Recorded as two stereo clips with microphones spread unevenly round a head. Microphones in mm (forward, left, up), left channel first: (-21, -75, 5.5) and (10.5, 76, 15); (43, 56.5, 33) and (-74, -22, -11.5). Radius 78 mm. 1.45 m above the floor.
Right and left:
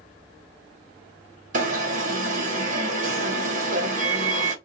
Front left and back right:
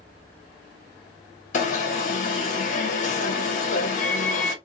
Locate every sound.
1.5 s an alarm: 65° left, 1.3 m